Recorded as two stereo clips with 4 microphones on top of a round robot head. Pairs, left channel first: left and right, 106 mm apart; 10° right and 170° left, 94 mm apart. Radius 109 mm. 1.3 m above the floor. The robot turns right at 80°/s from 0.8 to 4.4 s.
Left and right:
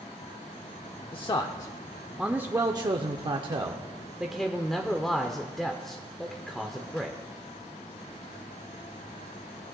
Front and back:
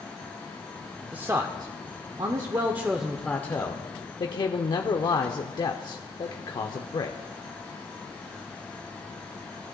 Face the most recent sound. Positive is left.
turn(degrees=5)